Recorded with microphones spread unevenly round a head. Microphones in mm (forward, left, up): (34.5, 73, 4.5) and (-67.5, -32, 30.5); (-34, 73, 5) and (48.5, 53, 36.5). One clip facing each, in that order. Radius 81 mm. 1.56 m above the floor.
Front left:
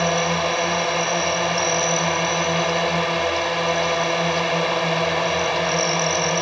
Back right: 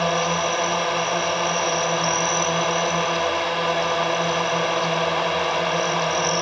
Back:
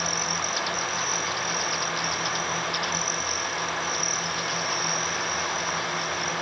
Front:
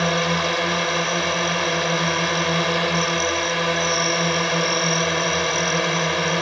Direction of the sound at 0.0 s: 40° right.